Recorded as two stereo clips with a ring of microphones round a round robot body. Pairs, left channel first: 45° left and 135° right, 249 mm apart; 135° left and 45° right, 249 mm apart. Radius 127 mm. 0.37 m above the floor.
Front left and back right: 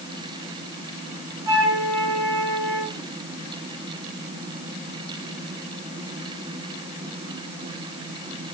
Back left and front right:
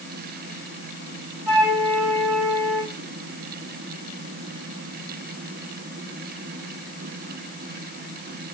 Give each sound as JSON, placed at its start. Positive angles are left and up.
{"t": 1.5, "sound": "a flute", "azimuth_deg": -140, "distance_m": 8.0}